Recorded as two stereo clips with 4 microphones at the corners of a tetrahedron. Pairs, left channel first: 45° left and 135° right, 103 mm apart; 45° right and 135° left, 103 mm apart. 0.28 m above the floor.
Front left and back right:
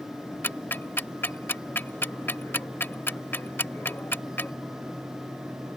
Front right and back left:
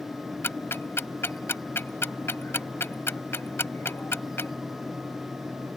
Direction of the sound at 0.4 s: 5° right.